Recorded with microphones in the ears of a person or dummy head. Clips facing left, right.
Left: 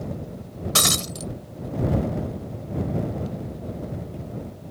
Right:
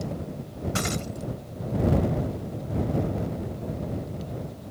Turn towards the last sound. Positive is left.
turn(degrees=85)